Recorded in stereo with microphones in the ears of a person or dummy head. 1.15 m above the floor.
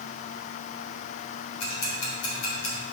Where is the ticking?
85° left, 3 m.